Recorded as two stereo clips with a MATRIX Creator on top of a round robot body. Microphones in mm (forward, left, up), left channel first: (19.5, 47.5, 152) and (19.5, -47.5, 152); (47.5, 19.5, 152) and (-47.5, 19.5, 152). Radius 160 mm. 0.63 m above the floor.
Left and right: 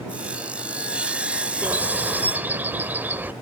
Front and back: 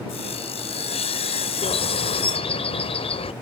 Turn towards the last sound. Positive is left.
turn(degrees=-20)